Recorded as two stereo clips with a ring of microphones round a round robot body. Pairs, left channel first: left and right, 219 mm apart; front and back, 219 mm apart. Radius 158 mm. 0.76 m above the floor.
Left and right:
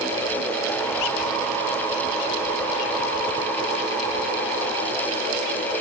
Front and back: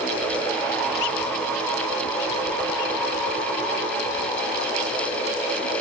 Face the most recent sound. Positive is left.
No sound to turn to.